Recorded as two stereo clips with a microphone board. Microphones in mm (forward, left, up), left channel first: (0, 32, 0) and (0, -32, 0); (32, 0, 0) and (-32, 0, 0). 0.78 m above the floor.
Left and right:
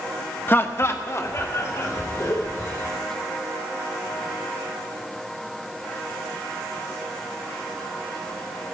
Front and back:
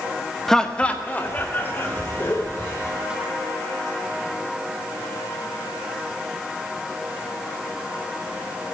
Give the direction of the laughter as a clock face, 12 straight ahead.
9 o'clock.